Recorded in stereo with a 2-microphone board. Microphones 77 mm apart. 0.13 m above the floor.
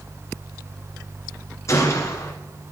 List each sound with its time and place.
1.7 s a gunshot: 40° left (ahead or behind), 2 m